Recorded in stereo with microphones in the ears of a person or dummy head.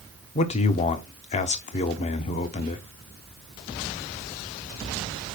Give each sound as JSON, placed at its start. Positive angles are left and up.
{"t": 0.3, "sound": "a man speaking", "side_deg": 35, "distance_m": 0.7}